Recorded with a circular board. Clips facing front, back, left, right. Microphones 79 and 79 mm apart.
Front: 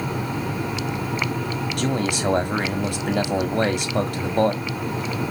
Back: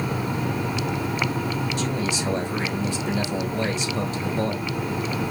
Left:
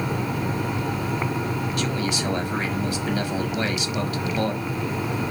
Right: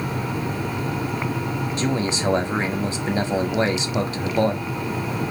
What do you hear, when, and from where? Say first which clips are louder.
1.8 s a man speaking: front 3 dB, right 5 dB; 30° right, 1.8 m